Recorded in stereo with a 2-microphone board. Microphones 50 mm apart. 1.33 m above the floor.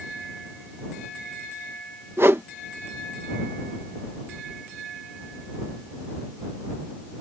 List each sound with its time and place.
2.2 s a whoosh: 55° right (ahead or behind)